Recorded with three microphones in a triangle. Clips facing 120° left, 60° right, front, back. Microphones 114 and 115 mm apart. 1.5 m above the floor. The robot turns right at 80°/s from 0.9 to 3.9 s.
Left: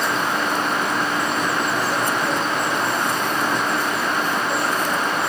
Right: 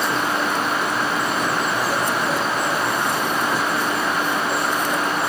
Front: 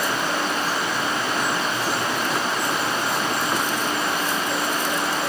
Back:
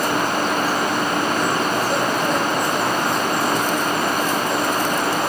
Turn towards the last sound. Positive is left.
No sound to turn to.